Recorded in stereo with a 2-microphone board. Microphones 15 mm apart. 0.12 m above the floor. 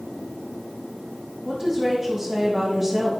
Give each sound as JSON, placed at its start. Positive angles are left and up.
{"t": 1.4, "sound": "a woman speaking", "side_deg": -25, "distance_m": 5.0}